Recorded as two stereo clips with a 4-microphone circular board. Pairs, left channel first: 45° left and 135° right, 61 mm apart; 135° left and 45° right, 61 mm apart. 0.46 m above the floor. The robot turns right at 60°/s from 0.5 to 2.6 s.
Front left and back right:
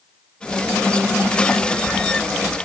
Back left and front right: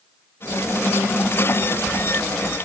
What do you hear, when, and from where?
Only background noise.